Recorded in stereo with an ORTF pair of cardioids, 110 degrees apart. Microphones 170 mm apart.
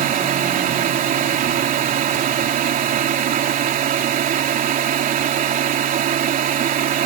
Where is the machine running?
55° right.